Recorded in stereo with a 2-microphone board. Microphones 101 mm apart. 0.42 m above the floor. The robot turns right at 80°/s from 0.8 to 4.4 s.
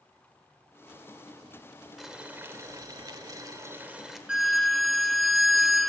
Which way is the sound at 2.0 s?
Straight behind.